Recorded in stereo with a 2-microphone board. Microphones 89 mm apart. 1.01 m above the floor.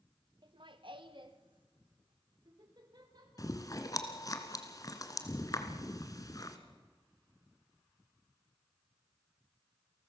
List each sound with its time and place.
0.4 s laughter: 55° right (ahead or behind), 1.1 m; by 4.4 s 50° right (ahead or behind), 6.5 m
3.4 s chewing: 40° left (ahead or behind), 1.9 m